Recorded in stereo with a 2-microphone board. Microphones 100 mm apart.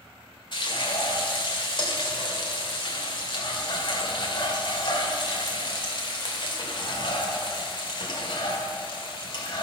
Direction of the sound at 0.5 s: 50° left (ahead or behind).